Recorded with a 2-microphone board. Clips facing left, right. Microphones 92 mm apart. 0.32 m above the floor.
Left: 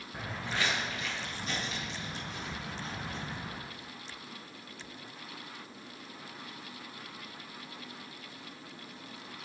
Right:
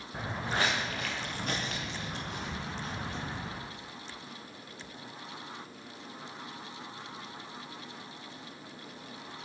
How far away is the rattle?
No rattle in this recording.